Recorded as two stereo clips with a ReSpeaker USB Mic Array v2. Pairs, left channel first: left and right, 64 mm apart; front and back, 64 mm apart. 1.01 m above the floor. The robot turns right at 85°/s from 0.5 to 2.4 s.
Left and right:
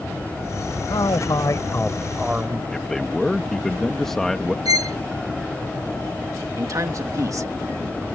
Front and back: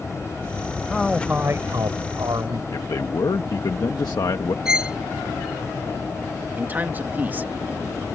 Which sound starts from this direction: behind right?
A man speaking, at 6.6 s.